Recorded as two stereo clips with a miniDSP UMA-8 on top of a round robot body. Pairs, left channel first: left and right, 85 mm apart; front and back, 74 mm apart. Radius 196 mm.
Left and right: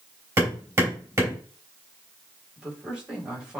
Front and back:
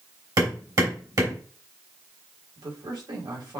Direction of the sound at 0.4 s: 150° right.